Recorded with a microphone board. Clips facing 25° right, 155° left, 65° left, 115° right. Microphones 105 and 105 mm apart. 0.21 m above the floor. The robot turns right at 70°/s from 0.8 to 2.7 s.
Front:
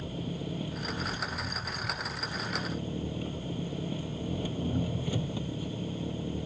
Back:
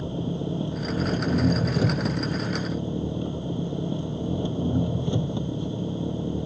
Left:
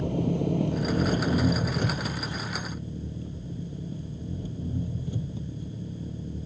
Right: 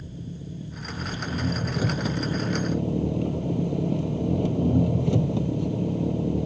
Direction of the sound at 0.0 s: 90° left.